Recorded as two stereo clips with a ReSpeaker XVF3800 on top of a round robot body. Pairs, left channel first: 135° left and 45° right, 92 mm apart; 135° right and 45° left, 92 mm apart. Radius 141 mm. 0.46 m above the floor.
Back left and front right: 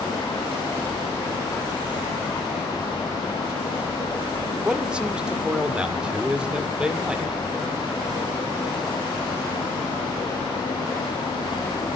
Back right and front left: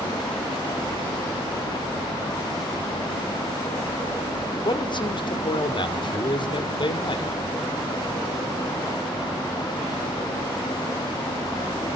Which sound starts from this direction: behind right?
A man speaking, at 4.7 s.